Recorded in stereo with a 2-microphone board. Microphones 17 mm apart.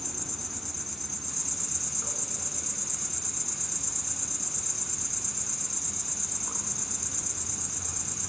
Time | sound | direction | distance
0.0 | an insect | centre (ahead or behind) | 1.0 m